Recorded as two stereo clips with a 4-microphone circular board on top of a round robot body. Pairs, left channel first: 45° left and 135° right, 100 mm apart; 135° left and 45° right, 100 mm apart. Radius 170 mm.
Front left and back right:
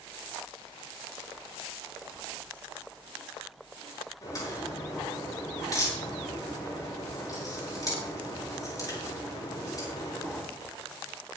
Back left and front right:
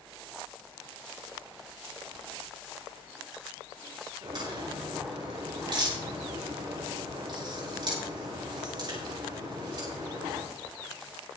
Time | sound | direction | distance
4.2 | a crack | 5° right | 8.5 m